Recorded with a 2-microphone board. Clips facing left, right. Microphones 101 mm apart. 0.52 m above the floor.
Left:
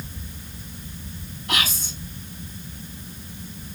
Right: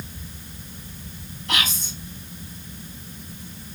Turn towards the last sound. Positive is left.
turn(degrees=5)  # may be behind; listen again after turning